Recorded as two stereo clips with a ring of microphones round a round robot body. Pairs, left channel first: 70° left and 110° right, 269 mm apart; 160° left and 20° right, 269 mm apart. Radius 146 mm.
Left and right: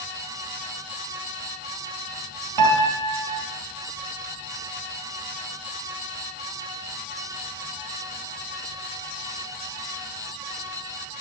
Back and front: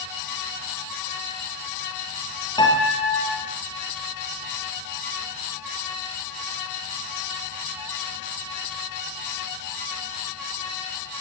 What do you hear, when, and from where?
2.6 s a piano: 125° right, 5.5 m